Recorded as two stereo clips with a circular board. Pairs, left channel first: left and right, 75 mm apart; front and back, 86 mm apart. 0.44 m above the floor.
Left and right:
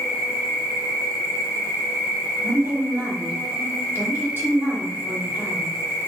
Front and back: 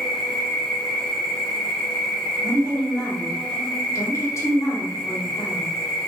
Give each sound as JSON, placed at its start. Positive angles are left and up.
{"t": 0.0, "sound": "an insect", "azimuth_deg": -70, "distance_m": 1.8}
{"t": 2.4, "sound": "a woman speaking", "azimuth_deg": -40, "distance_m": 2.0}